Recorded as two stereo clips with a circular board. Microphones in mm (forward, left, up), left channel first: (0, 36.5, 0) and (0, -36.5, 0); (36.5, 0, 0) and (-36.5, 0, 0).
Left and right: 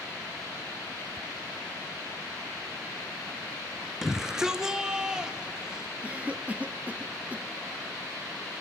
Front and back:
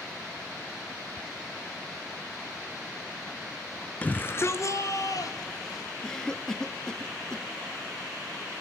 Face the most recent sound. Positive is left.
turn(degrees=-65)